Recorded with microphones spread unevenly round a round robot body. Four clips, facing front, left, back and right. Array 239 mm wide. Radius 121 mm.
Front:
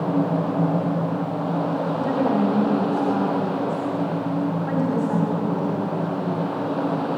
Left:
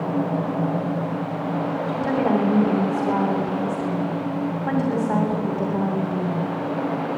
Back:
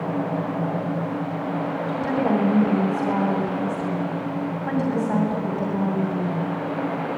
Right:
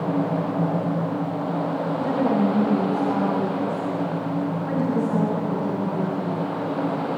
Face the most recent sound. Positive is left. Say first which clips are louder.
# left 2 dB, back 1 dB
turn(degrees=120)